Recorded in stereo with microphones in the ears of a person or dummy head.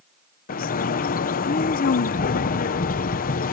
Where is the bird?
40° left (ahead or behind).